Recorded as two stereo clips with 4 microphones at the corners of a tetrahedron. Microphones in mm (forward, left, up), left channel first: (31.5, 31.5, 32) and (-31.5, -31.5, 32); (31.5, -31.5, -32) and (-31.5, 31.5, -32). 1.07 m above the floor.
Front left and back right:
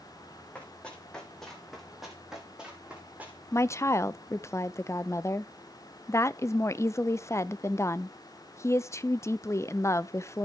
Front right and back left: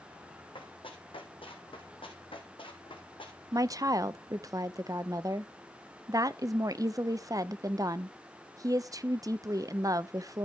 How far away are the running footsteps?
About 2.5 m.